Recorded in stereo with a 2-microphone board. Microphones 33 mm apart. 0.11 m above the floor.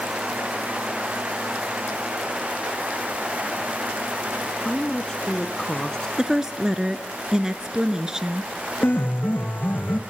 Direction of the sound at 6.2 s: 20° right (ahead or behind).